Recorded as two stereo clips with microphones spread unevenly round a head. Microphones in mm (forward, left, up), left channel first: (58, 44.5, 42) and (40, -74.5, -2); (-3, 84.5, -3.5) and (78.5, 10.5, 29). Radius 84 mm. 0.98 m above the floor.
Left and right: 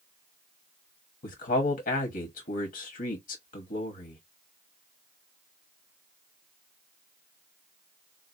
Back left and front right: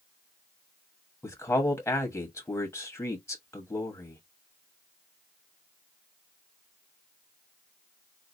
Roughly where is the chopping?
No chopping in this recording.